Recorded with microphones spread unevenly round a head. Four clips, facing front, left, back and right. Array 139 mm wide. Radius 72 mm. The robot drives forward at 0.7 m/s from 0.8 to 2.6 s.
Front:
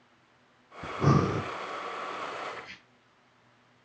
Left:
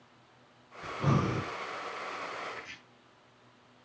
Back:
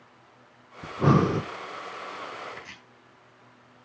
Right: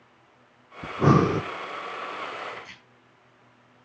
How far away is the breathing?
About 0.7 m.